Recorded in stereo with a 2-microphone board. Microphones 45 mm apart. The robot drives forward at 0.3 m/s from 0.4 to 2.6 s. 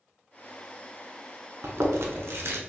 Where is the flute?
I don't hear a flute.